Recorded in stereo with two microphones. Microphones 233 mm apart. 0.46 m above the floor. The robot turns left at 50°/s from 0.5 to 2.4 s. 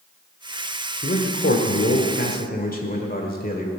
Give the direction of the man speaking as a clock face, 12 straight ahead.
8 o'clock.